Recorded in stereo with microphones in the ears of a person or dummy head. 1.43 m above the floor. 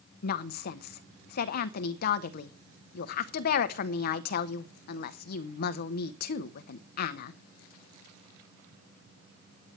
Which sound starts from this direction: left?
A woman speaking, at 0.2 s.